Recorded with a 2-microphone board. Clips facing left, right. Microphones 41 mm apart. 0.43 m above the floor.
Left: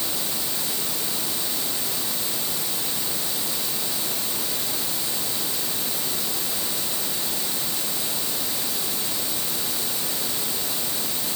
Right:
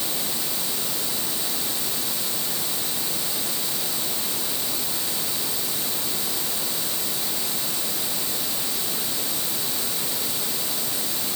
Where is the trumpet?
No trumpet in this recording.